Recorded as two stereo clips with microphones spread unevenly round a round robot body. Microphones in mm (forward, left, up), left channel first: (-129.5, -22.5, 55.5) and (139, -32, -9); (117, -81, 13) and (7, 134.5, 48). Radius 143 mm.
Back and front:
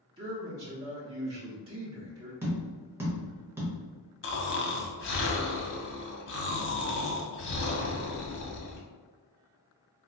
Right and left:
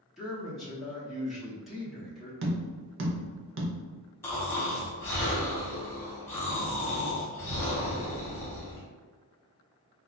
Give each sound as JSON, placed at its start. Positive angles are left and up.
{"t": 0.2, "sound": "a man speaking", "azimuth_deg": 15, "distance_m": 1.1}
{"t": 2.4, "sound": "tapping", "azimuth_deg": 80, "distance_m": 0.8}
{"t": 4.2, "sound": "snoring", "azimuth_deg": -135, "distance_m": 0.8}